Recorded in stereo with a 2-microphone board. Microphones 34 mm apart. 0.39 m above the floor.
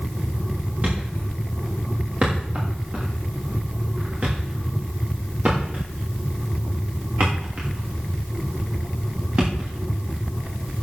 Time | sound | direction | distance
0.8 | a thud | 45° right (ahead or behind) | 6 m